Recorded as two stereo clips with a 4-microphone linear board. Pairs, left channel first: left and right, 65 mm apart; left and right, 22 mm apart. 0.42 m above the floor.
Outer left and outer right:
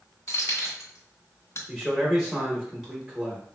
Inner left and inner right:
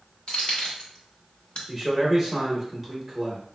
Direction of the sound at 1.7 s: 10° right (ahead or behind).